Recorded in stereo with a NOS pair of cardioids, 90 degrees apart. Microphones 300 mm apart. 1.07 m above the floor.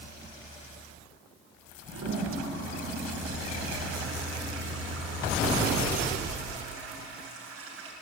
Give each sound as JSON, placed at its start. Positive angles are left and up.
{"t": 1.9, "sound": "a toilet flushing", "azimuth_deg": -50, "distance_m": 8.5}